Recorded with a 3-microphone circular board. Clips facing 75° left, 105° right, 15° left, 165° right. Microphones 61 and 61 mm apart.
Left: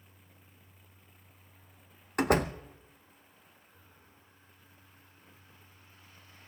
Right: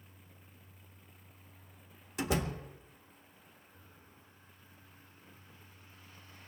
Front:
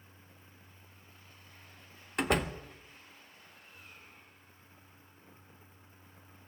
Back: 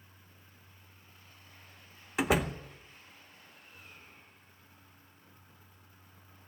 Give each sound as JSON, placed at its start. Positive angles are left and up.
{"t": 2.2, "sound": "a door slam", "azimuth_deg": 110, "distance_m": 0.9}